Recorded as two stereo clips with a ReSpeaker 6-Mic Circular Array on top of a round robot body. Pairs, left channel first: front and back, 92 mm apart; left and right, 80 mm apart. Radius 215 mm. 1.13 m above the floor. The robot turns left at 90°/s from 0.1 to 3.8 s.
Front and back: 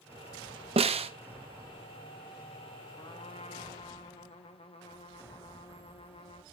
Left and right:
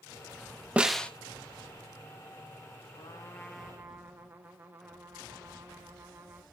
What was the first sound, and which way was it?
A snare drum, 165° right.